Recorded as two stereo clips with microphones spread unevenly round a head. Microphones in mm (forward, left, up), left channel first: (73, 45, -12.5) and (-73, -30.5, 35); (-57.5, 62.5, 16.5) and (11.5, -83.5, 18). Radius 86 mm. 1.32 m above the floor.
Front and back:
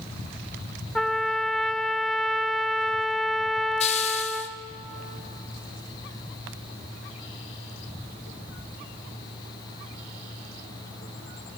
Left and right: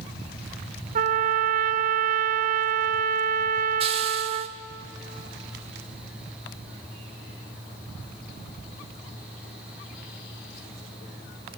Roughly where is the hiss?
Ahead right.